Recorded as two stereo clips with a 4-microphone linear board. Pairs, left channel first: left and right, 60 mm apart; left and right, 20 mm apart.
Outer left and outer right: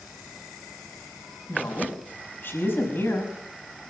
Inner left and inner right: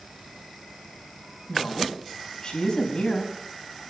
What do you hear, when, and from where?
1.5 s a woman speaking: 35° left (ahead or behind), 5 m